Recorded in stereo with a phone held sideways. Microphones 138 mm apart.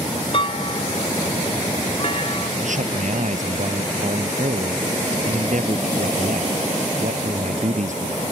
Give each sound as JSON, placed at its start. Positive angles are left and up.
{"t": 0.3, "sound": "a clunk", "side_deg": 40}
{"t": 2.6, "sound": "a man speaking", "side_deg": -65}